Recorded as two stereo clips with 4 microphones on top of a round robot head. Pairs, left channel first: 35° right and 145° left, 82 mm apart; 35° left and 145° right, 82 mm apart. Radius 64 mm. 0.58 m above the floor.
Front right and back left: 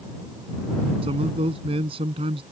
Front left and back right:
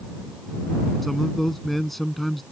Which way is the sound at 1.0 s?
125° left.